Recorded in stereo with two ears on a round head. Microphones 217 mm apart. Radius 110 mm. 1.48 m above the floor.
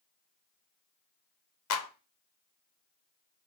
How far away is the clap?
About 0.7 m.